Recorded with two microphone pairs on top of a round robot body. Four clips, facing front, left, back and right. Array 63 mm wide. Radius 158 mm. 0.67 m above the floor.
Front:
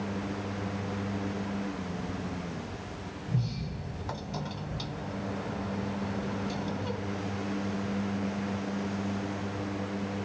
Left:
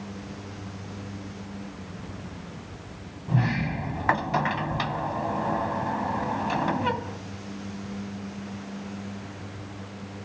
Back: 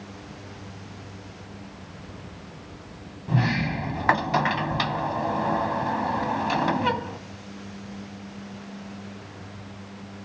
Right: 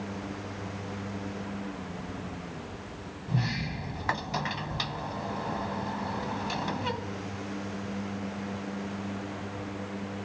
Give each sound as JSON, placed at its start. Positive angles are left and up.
{"t": 3.3, "sound": "a sliding door", "azimuth_deg": 160}